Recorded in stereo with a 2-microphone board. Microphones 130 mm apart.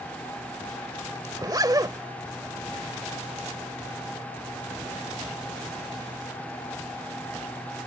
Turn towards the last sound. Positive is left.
turn(degrees=-30)  # may be behind; listen again after turning